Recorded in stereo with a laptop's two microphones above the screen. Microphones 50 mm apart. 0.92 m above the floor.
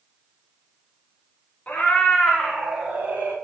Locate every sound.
1.7 s a cat meowing: 35° left (ahead or behind), 0.9 m; by 3.4 s 40° right (ahead or behind), 1.1 m